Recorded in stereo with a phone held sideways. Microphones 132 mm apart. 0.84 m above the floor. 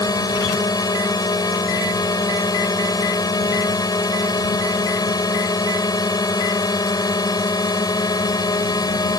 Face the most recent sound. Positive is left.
turn(degrees=30)  # may be behind; listen again after turning